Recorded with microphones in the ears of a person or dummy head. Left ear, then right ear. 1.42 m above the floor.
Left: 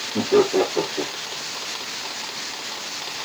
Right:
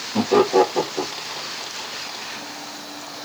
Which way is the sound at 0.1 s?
75° right (ahead or behind).